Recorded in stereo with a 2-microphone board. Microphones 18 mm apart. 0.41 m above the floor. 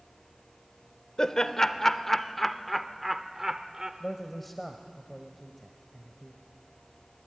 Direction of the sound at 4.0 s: 10° left (ahead or behind).